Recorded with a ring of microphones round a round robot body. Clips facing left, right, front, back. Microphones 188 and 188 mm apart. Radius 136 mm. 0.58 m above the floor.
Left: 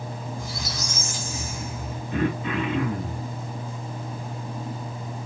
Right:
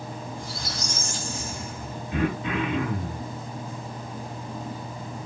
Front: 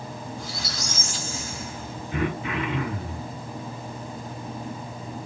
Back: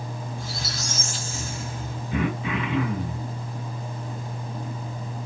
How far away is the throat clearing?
About 0.9 m.